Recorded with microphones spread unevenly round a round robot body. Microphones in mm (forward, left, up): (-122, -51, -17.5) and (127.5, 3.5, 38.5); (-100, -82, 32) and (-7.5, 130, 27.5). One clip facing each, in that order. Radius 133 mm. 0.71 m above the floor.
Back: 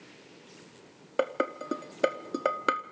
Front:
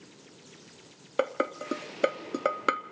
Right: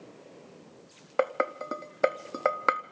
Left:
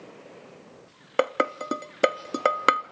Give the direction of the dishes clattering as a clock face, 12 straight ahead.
8 o'clock.